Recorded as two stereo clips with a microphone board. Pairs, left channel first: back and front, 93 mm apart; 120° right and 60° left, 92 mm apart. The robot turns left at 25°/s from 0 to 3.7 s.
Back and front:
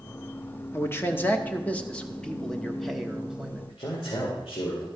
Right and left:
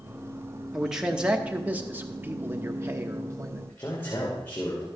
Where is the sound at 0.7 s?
145° left, 1.0 m; by 3.6 s 70° left, 1.0 m.